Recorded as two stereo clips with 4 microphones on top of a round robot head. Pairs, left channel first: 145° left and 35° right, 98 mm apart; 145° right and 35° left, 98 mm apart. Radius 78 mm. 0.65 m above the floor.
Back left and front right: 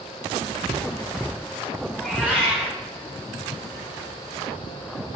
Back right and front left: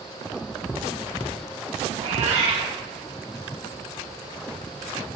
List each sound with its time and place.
1.9 s a cat meowing: 40° left, 3.5 m